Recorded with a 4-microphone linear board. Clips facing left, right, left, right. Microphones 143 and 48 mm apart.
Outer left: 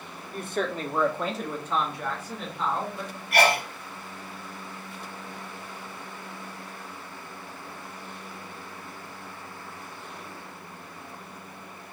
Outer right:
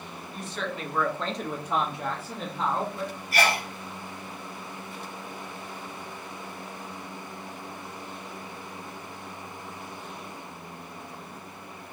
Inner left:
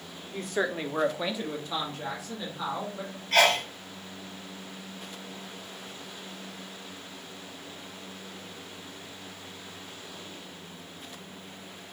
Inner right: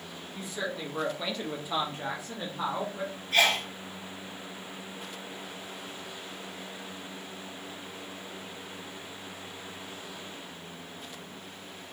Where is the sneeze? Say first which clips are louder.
Outer left 4 dB, inner left 3 dB; 70° left (ahead or behind), 0.8 m.